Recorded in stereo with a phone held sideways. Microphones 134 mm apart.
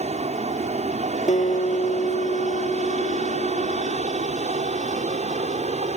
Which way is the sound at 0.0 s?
55° right (ahead or behind).